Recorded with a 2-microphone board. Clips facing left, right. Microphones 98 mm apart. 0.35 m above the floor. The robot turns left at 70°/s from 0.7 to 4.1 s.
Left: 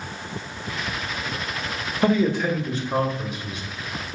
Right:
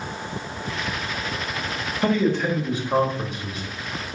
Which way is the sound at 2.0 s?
30° left.